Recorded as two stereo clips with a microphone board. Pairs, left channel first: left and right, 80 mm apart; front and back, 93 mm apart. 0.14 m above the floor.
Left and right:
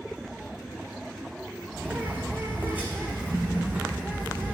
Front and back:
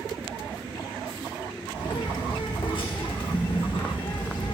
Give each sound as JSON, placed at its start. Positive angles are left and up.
{"t": 1.7, "sound": "a bird", "azimuth_deg": -20, "distance_m": 1.6}